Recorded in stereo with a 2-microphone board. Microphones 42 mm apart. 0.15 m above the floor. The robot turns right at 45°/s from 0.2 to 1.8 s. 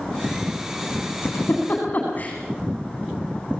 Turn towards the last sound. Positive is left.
turn(degrees=40)  # may be behind; listen again after turning